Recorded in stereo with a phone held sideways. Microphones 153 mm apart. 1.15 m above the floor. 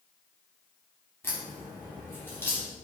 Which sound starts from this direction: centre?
A crack, at 1.2 s.